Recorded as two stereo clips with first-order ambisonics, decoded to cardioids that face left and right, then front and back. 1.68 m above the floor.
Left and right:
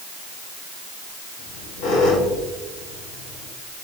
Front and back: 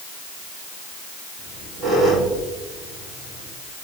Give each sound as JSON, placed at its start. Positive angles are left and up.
{"t": 1.4, "sound": "a squeak", "azimuth_deg": 100, "distance_m": 5.0}